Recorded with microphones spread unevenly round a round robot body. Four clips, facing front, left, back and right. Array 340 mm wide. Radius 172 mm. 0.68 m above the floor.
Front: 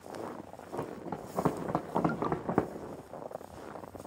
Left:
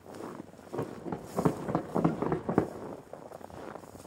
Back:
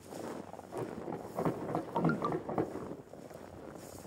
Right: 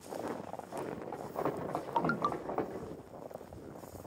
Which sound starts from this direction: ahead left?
Running footsteps, at 0.7 s.